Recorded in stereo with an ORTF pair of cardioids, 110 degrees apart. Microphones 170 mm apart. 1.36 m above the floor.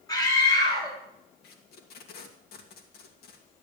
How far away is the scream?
About 10 m.